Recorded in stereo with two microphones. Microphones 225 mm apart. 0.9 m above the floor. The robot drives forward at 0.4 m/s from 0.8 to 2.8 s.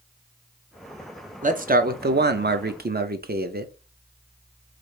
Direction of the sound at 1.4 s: 35° right (ahead or behind).